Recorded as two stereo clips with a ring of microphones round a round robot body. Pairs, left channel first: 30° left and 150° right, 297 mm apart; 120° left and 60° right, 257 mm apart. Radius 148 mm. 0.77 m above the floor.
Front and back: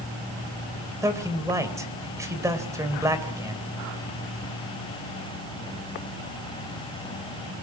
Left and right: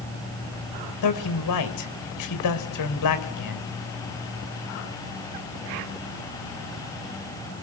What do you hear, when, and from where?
1.0 s a man speaking: 130° left, 3 m